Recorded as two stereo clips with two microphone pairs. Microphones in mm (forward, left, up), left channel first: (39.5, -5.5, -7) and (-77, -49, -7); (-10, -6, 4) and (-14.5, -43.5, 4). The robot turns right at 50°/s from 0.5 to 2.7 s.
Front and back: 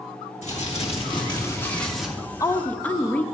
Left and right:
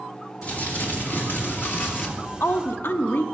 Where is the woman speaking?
75° left, 0.6 m; by 3.2 s 100° left, 0.6 m.